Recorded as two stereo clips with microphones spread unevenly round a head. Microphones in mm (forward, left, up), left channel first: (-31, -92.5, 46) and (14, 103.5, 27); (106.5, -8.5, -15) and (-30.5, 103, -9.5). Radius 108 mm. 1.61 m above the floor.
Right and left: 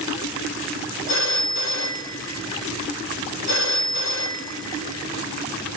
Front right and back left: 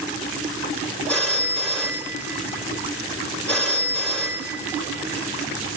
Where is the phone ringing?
125° right, 5 m.